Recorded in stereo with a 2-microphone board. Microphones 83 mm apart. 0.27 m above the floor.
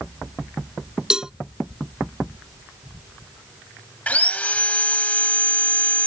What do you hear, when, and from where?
1.1 s a cowbell: 10° right (ahead or behind)
4.1 s sawing: 20° left (ahead or behind)